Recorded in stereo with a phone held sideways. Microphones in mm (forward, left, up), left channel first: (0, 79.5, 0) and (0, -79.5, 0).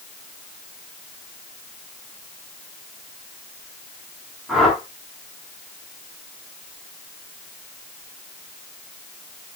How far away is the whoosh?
About 8 m.